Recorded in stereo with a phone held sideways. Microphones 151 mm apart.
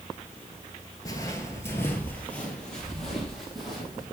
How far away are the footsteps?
About 0.9 m.